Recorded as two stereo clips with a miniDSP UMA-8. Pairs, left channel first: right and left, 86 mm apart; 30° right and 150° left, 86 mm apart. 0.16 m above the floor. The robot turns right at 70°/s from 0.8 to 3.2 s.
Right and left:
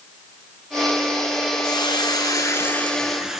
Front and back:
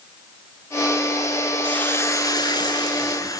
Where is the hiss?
105° right, 0.8 m; by 3.4 s 5° left, 0.8 m.